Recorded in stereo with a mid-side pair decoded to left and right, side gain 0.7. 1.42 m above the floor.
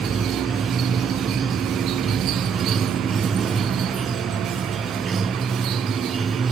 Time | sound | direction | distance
0.0 | running water | 20° right | ?